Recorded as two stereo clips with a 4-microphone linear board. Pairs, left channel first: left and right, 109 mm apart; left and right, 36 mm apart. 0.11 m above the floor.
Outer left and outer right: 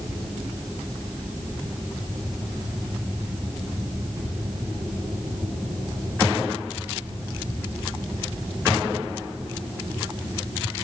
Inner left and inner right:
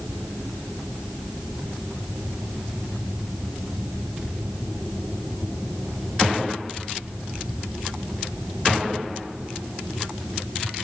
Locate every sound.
Only background noise.